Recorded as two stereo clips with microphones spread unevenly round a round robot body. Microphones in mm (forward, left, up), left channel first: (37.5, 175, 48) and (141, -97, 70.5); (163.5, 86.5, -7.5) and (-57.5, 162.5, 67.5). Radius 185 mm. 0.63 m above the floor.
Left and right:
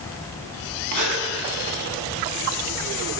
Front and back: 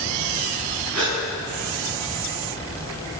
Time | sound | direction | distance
0.9 | a gasp | 110° right | 7 m